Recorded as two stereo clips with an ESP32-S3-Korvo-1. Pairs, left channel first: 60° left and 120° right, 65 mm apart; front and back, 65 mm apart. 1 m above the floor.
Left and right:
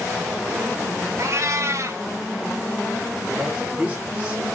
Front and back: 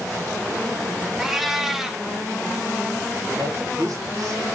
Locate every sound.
1.2 s a cat meowing: 95° right, 0.5 m
3.4 s a man speaking: 170° left, 2.5 m